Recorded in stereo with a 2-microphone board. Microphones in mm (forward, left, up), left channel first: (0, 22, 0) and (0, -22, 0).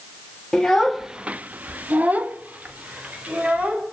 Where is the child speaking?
10° left (ahead or behind), 0.9 m; by 3.8 s 30° right (ahead or behind), 3 m.